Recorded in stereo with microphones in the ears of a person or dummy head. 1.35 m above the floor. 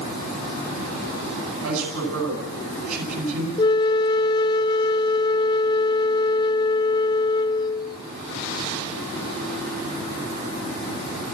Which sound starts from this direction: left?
A flute, at 3.6 s.